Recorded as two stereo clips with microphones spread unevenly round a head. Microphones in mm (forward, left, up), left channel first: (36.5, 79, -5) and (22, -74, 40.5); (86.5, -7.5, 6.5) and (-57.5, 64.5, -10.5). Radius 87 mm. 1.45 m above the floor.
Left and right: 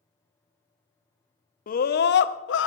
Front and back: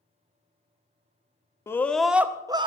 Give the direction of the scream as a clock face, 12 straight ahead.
10 o'clock.